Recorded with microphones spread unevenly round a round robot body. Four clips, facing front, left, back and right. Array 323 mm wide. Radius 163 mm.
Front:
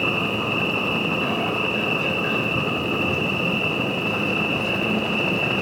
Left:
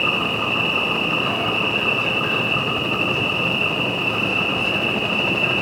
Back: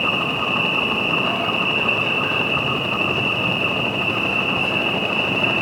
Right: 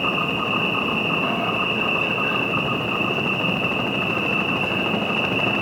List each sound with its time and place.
0.0 s an insect: 20° left, 1.4 m